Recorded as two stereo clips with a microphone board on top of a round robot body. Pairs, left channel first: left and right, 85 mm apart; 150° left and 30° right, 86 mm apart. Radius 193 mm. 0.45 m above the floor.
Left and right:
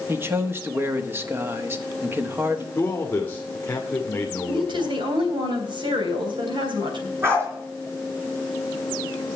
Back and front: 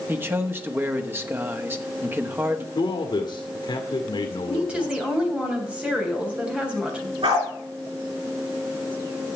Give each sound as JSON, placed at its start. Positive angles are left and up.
{"t": 0.1, "sound": "a man speaking", "azimuth_deg": -60, "distance_m": 1.5}
{"t": 2.8, "sound": "a man speaking", "azimuth_deg": 155, "distance_m": 1.8}
{"t": 4.5, "sound": "a woman speaking", "azimuth_deg": -105, "distance_m": 3.5}
{"t": 7.2, "sound": "a dog barking", "azimuth_deg": -30, "distance_m": 4.5}